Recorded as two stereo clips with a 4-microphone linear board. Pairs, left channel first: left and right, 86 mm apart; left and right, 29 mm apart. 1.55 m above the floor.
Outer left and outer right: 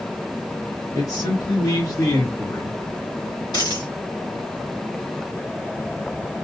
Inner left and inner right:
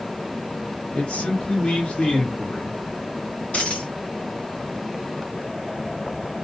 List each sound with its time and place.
0.9 s a man speaking: 45° left (ahead or behind), 2 m; by 2.7 s 35° left (ahead or behind), 0.7 m
3.5 s a dropped coin: 55° left (ahead or behind), 2 m